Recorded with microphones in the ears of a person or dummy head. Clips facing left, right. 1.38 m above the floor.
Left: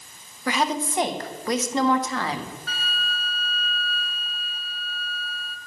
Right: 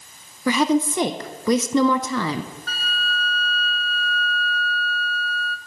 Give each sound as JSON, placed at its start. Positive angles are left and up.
{"t": 0.5, "sound": "a woman speaking", "side_deg": -75, "distance_m": 0.6}
{"t": 2.7, "sound": "a flute", "side_deg": -40, "distance_m": 0.6}